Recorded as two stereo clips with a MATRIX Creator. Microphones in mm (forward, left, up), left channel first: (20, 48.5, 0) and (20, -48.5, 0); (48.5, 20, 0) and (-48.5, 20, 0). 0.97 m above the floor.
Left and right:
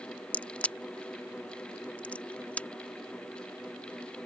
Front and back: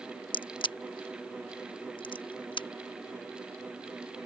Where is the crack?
15° left.